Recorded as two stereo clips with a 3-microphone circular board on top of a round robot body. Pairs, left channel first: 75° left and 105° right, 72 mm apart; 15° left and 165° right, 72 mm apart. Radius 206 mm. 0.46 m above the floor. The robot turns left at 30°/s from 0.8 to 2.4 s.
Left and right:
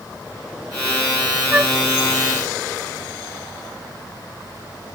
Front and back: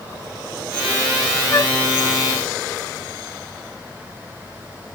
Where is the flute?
35° right; by 1.8 s 40° right.